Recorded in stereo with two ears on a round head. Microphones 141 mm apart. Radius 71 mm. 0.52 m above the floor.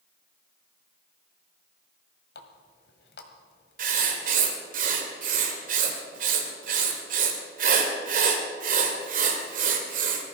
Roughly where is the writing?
Right.